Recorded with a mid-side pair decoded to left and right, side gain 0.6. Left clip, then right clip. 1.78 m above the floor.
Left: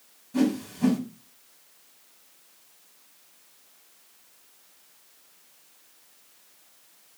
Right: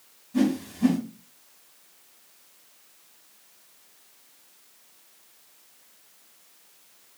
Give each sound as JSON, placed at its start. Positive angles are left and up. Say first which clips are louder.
{"t": 0.3, "sound": "a whoosh", "louder": "even", "azimuth_deg": 30, "distance_m": 1.4}